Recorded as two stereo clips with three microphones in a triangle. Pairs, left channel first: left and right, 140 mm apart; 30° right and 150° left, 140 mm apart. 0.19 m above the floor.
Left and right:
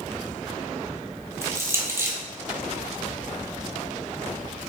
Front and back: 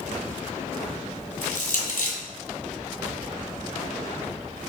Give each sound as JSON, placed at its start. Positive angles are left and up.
{"t": 1.4, "sound": "crushing", "azimuth_deg": -20, "distance_m": 1.0}